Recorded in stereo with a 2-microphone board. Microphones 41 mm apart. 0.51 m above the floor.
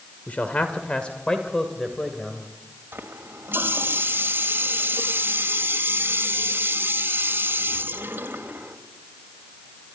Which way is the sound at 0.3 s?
45° left (ahead or behind).